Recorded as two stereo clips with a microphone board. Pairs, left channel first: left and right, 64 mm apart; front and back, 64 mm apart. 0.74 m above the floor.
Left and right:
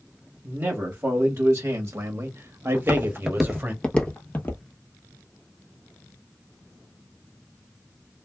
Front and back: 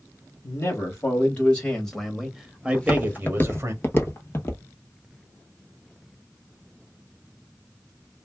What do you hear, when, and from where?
0.4 s a man speaking: 45° right, 1.3 m; by 3.7 s 145° right, 1.1 m
2.7 s footsteps: 60° right, 0.9 m; by 4.6 s 45° left, 1.2 m